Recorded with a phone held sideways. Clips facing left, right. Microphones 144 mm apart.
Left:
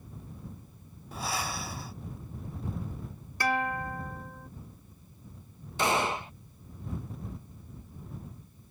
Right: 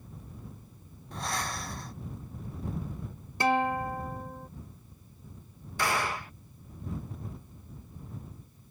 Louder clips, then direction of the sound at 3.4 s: Right 4 dB; 25° right (ahead or behind).